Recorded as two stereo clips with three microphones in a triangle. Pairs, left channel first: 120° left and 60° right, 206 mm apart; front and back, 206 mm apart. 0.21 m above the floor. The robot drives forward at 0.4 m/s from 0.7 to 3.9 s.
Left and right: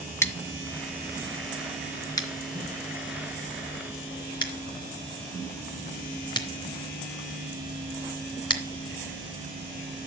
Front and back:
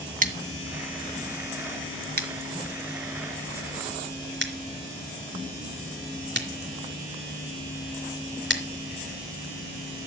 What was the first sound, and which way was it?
Scissors, 170° right.